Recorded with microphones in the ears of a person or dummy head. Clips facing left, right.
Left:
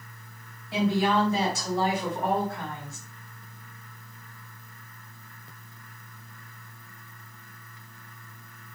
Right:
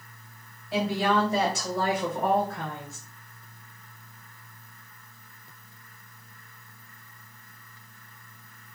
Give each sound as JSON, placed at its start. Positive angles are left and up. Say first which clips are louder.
{"t": 0.7, "sound": "a woman speaking", "louder": "left 1 dB", "side_deg": -65, "distance_m": 2.5}